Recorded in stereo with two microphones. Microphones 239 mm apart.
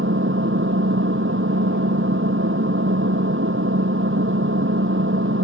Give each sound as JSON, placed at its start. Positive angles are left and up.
{"t": 0.0, "sound": "an engine running", "side_deg": -60}